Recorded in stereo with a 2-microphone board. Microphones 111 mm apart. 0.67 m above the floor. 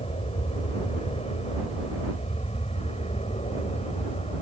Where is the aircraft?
60° left (ahead or behind); by 4.4 s 65° left (ahead or behind).